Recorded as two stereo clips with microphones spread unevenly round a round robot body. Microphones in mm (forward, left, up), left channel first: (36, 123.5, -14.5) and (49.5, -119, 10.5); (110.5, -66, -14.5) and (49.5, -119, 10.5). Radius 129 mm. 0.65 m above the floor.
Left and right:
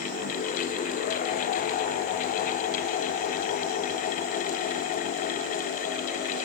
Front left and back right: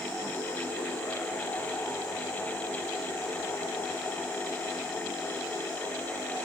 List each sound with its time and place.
Only background noise.